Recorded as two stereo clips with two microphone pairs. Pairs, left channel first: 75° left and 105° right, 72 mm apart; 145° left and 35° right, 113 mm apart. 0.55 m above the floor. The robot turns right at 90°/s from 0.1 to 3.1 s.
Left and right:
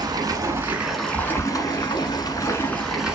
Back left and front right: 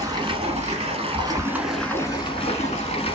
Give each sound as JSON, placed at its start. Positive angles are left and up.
{"t": 0.0, "sound": "running water", "azimuth_deg": -95, "distance_m": 1.3}